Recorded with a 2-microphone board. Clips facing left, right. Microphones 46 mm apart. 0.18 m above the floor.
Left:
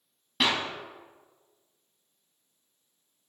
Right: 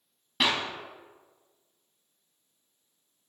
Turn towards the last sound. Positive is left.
turn(degrees=-5)  # may be behind; listen again after turning